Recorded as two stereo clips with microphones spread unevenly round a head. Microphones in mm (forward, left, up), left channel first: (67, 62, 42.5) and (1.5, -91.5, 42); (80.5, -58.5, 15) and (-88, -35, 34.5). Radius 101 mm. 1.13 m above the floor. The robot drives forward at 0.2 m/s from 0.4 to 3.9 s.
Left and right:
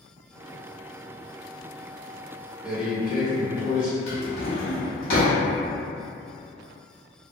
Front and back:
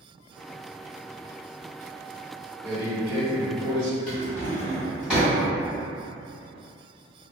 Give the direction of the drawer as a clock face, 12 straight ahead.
9 o'clock.